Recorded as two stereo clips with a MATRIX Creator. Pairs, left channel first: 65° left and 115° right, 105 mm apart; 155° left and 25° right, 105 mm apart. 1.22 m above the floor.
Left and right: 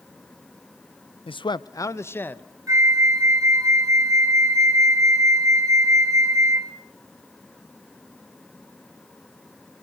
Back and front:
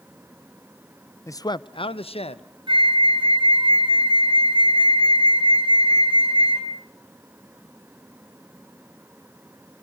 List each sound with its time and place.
1.3 s a man speaking: 95° left, 0.5 m; by 2.4 s 140° left, 1.1 m
2.7 s a flute: 55° right, 2.5 m